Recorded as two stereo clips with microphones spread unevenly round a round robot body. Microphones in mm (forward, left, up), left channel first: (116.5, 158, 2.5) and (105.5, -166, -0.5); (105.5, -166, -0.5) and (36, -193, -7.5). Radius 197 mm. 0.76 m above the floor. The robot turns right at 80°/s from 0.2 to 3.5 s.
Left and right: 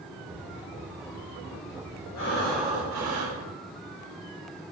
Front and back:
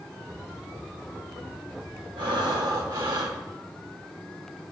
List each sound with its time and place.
2.2 s breathing: 145° left, 1.4 m; by 3.4 s 115° right, 1.4 m